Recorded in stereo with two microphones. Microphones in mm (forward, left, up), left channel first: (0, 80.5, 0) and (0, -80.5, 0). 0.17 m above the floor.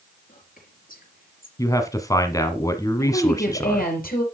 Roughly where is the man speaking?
Left.